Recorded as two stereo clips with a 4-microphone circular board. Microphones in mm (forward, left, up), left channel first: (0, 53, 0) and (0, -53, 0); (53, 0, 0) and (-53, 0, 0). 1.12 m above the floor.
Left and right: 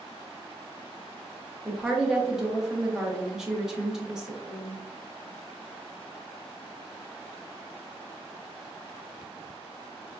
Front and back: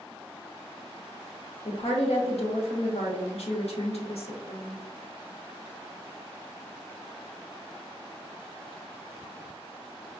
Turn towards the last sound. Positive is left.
turn(degrees=-5)